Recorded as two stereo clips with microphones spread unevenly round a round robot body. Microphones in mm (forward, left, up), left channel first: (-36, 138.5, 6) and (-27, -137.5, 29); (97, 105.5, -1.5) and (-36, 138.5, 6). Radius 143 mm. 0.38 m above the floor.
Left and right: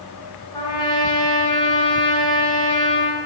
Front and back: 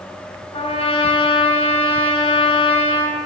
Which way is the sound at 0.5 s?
20° left.